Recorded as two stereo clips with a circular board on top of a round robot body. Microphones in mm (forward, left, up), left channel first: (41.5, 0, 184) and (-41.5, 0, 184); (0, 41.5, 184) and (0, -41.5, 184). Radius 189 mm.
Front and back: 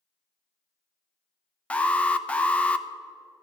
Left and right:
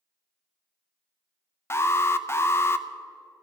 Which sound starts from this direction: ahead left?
An alarm, at 1.7 s.